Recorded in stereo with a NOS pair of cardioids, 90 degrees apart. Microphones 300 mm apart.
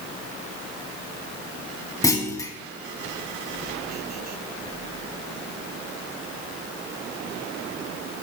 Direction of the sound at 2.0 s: 10° left.